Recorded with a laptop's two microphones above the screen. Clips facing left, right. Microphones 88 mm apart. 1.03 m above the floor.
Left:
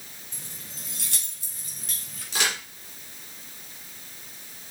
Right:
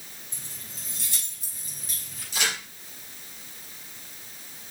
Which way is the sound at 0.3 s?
55° left (ahead or behind).